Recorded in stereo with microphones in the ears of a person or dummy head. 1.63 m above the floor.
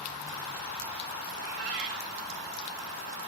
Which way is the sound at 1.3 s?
45° right (ahead or behind).